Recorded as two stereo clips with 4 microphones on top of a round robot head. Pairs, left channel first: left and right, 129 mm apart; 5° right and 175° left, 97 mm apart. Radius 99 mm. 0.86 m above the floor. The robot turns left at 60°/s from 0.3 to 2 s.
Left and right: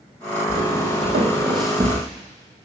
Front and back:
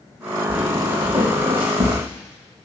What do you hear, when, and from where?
0.5 s footsteps: 75° right, 2 m; by 2.0 s 160° right, 1.4 m